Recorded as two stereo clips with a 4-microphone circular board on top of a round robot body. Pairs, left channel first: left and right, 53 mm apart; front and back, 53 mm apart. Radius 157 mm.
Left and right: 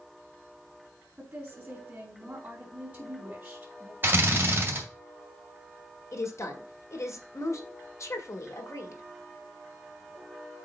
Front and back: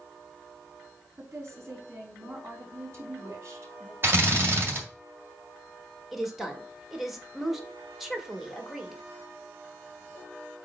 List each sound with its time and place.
1.2 s a woman speaking: 155° right, 3.5 m
4.0 s a drill: 140° right, 2 m
6.1 s a woman speaking: 95° left, 1.9 m